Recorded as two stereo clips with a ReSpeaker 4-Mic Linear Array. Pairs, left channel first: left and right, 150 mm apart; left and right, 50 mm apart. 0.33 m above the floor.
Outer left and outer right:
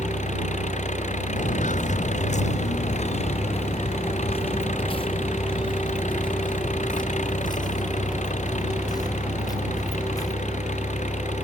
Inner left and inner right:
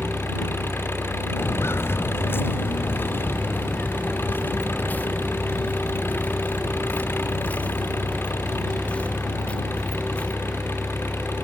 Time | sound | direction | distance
0.0 | an engine running | 50° left (ahead or behind) | ?
1.4 | footsteps | 55° left (ahead or behind) | ?